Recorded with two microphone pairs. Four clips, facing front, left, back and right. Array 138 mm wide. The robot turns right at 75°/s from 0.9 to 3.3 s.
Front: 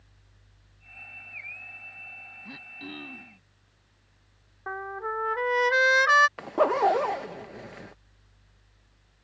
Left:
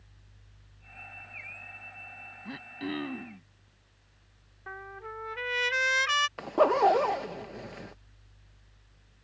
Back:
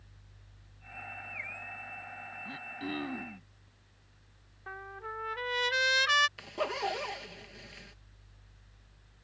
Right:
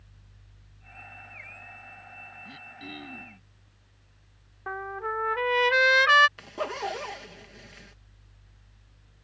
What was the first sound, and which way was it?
Throat clearing, 75° left.